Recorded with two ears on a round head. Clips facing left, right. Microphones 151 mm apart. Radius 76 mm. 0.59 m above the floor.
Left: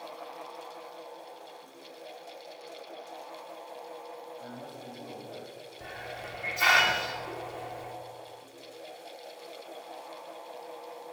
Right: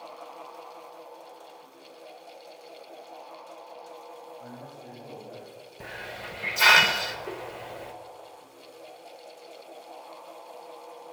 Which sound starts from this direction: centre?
A man speaking, at 4.4 s.